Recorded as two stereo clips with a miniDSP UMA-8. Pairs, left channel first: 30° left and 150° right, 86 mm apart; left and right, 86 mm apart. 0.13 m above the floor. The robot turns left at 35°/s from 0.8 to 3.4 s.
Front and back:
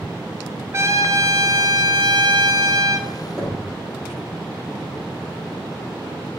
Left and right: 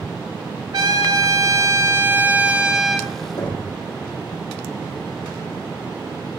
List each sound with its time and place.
0.7 s a trumpet: 100° right, 0.6 m; by 3.1 s 175° left, 0.6 m
3.4 s knocking: 125° left, 3 m